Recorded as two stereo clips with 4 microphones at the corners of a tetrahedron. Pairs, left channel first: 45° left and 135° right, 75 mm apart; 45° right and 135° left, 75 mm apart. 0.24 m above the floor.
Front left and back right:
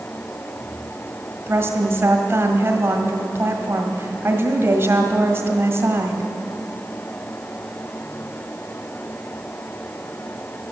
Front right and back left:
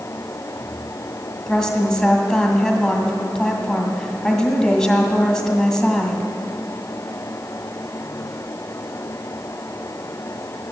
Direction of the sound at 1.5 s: 120° right.